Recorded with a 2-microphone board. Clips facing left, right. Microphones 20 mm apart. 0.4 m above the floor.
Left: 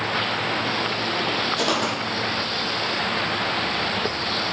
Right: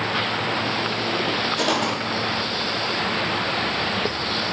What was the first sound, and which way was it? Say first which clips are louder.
Footsteps: right 1 dB; 5° left (ahead or behind).